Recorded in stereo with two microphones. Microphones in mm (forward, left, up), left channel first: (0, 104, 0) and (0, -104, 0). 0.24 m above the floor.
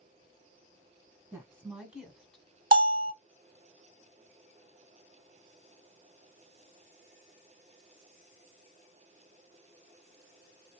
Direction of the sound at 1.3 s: 15° right (ahead or behind).